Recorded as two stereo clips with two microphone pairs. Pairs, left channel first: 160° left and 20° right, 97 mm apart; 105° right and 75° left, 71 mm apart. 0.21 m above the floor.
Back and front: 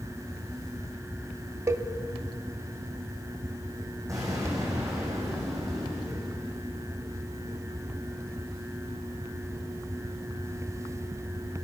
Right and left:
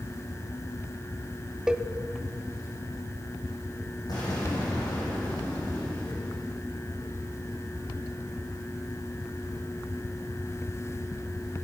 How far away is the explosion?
About 6 m.